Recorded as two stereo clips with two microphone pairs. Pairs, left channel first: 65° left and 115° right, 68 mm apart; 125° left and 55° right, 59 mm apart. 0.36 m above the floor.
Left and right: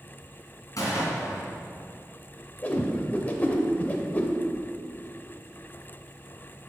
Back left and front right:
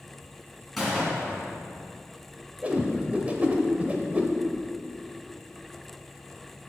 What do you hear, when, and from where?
0.8 s a gunshot: 35° left, 1.9 m
2.6 s a whoosh: 5° left, 0.6 m